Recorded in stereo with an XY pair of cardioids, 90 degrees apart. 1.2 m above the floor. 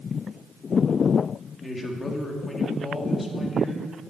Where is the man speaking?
25° left, 3 m.